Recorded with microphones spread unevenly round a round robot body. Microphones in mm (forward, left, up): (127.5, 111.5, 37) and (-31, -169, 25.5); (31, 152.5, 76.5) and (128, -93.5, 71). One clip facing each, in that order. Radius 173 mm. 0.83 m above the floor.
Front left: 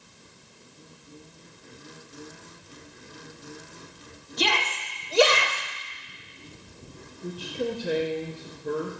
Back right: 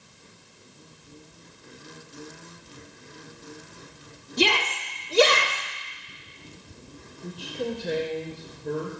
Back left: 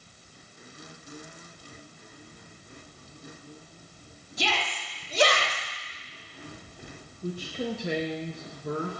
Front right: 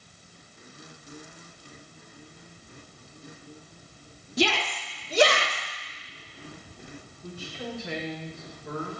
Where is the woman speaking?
140° left, 1.2 m.